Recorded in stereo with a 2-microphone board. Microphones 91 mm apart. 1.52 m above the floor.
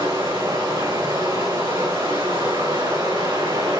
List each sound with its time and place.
0.0 s running water: 75° right (ahead or behind), 3.5 m